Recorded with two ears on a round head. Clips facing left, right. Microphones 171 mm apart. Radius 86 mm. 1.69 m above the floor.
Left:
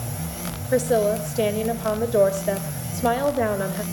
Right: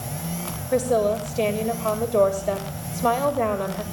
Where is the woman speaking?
10° left (ahead or behind), 1.8 m.